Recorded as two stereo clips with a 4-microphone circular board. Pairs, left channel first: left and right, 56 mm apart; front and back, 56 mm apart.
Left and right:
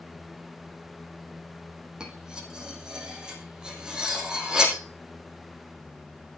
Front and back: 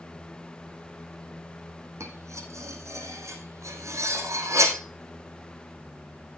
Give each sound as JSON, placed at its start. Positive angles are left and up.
{"t": 2.0, "sound": "cutlery clinking", "azimuth_deg": -165, "distance_m": 3.0}